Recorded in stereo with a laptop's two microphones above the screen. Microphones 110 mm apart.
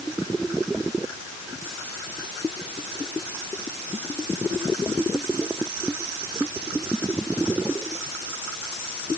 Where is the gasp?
No gasp in this recording.